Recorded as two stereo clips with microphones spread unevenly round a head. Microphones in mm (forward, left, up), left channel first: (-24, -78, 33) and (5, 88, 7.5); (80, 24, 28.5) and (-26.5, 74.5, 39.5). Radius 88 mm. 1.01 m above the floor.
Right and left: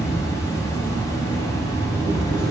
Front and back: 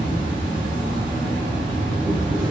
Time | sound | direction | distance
0.0 | an insect | 175° right | 1.1 m